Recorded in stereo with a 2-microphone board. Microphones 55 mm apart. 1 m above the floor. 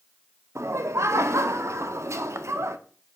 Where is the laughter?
60° right (ahead or behind), 0.5 m.